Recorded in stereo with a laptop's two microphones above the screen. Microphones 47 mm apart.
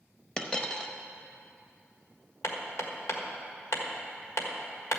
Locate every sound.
0.4 s a dropped coin: 20° left (ahead or behind), 0.8 m
2.4 s hammering: 75° left (ahead or behind), 1.5 m